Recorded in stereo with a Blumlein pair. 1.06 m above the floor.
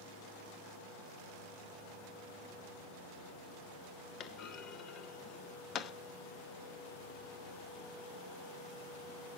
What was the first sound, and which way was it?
A clunk, 30° left.